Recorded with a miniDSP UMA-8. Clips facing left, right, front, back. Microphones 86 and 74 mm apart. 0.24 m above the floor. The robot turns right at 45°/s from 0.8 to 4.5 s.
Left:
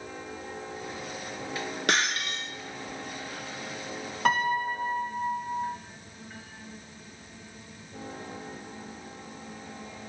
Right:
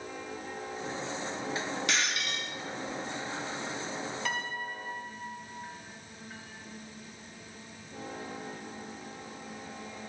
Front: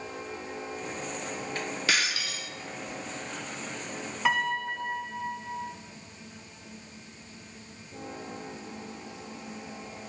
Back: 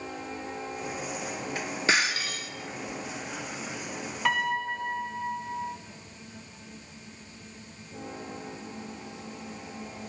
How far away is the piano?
About 0.8 m.